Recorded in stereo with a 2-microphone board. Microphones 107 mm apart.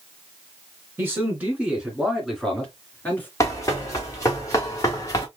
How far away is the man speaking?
About 1.9 m.